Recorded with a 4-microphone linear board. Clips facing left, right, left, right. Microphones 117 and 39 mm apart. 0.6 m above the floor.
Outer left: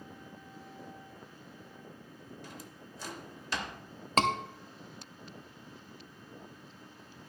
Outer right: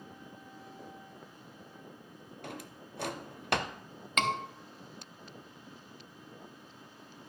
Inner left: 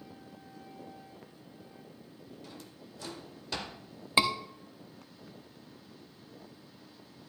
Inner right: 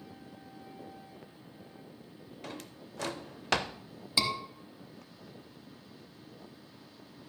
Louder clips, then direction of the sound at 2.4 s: Outer right 4 dB, inner right 4 dB; 65° right (ahead or behind).